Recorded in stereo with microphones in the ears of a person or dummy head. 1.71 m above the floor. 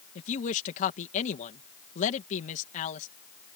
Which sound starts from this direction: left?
A woman speaking, at 0.1 s.